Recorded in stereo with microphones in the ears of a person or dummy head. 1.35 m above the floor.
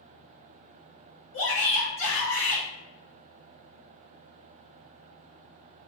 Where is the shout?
70° left (ahead or behind), 1.4 m.